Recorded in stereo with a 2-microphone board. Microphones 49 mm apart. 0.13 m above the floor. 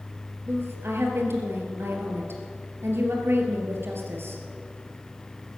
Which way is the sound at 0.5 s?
55° right (ahead or behind).